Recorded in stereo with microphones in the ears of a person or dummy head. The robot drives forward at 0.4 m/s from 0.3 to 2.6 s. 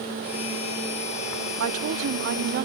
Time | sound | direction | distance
1.6 | a woman speaking | 70° right (ahead or behind) | 0.6 m